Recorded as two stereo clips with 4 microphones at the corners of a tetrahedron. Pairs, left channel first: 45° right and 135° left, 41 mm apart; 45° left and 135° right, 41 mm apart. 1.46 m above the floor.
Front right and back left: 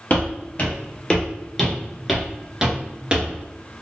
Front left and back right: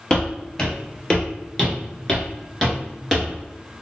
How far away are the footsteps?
About 1.9 m.